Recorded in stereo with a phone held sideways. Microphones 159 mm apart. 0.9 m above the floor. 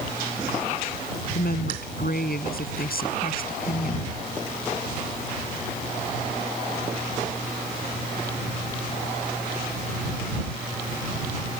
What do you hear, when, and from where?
1.4 s a woman speaking: 80° left; by 4.1 s 65° left (ahead or behind)